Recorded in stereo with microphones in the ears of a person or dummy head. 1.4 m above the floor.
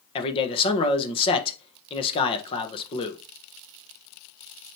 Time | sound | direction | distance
0.1 | a man speaking | 25° left (ahead or behind) | 1.3 m